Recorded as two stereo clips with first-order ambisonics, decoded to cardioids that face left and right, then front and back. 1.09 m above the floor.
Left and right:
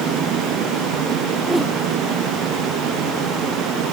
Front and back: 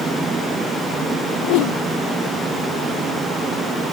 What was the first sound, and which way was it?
A whoosh, straight ahead.